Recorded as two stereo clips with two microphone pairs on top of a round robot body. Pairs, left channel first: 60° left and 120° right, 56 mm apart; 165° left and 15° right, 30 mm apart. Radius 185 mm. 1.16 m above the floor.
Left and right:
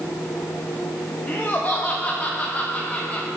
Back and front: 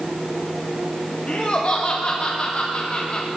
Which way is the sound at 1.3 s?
115° left.